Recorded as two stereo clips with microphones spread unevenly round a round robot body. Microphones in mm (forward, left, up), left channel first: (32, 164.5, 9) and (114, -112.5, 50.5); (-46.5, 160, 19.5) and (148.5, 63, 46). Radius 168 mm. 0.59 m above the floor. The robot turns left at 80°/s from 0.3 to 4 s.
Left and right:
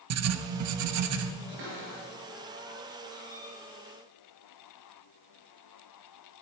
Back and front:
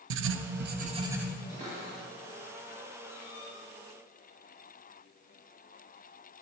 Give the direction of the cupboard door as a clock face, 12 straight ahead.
3 o'clock.